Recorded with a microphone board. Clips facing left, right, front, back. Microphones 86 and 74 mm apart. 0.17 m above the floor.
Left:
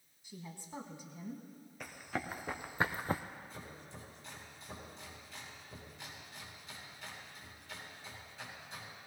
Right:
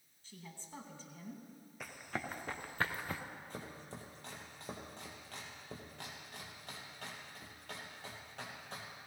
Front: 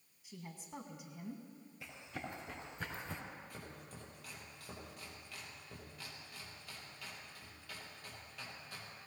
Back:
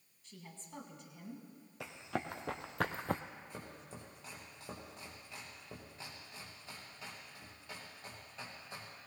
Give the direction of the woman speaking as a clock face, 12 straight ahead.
10 o'clock.